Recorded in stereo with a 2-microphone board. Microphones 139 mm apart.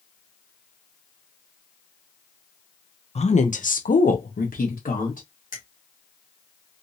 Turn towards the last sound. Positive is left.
turn(degrees=70)  # may be behind; listen again after turning